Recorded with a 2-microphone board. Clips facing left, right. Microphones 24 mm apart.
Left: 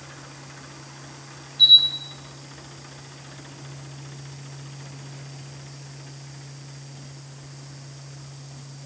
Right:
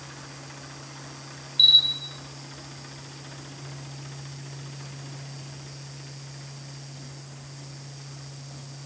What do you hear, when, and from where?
1.6 s a camera shutter: 70° right (ahead or behind), 1.2 m